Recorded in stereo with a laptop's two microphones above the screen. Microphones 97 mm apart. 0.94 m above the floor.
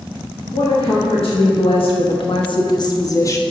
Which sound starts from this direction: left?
A woman speaking, at 0.5 s.